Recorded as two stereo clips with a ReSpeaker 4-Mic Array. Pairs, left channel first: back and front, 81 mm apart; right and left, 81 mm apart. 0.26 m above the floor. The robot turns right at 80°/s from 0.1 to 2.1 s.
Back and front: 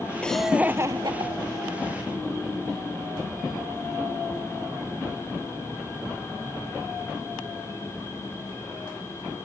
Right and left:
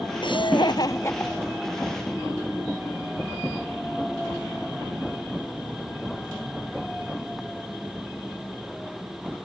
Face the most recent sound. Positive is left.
turn(degrees=50)